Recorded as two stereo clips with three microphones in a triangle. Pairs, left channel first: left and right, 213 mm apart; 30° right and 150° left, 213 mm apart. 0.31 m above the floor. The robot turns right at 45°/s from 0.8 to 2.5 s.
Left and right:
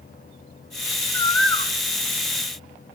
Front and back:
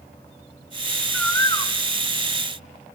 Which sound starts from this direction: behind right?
A bird, at 1.1 s.